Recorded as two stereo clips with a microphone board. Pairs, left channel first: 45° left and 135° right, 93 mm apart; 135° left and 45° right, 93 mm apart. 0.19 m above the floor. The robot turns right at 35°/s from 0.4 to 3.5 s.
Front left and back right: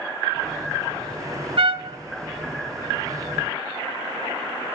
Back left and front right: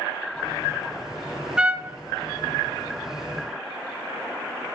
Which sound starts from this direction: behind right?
A trumpet, at 1.6 s.